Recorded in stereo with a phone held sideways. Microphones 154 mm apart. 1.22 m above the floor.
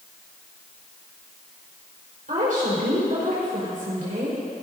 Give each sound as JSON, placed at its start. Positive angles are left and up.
{"t": 2.3, "sound": "a woman speaking", "side_deg": -60, "distance_m": 4.5}